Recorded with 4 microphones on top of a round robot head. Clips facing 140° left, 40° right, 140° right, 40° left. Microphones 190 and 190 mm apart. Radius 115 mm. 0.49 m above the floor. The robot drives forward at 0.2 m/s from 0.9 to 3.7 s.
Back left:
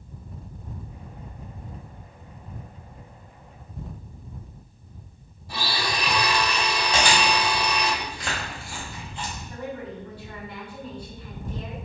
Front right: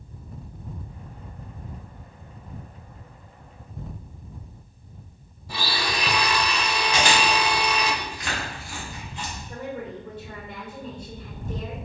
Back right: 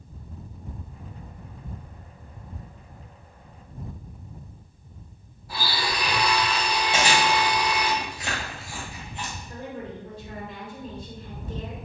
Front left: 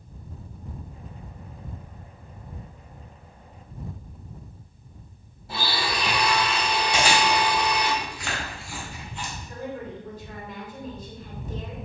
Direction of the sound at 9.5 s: 95° right.